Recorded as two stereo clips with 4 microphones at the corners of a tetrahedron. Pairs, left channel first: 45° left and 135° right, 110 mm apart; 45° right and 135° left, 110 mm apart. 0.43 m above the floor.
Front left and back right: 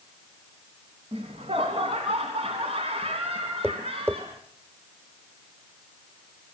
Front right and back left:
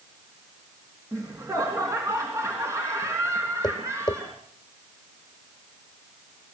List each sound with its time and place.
1.1 s laughter: 165° right, 3.5 m
3.6 s tapping: 75° right, 1.8 m